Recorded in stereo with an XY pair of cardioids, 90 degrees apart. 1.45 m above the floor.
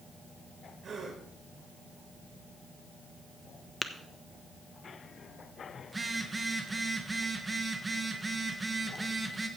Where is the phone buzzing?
20° right, 1.5 m.